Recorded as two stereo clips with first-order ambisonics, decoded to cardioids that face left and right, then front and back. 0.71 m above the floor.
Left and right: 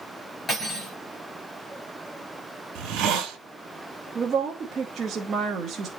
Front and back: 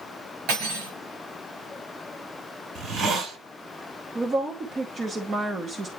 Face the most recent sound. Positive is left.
turn(degrees=-130)